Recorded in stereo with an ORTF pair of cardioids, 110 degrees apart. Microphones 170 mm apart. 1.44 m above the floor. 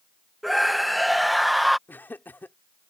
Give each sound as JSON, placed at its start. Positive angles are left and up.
{"t": 0.4, "sound": "a scream", "azimuth_deg": 0}
{"t": 1.9, "sound": "laughter", "azimuth_deg": 10}